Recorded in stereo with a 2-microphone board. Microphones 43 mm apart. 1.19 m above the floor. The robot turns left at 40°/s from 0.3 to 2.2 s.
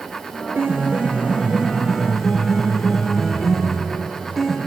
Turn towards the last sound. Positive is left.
turn(degrees=175)